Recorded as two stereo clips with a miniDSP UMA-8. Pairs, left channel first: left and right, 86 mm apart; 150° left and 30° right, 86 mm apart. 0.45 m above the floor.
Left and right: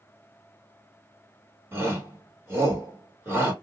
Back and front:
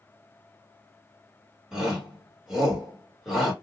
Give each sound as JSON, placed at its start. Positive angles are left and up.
{"t": 1.7, "sound": "a shout", "azimuth_deg": -110, "distance_m": 1.5}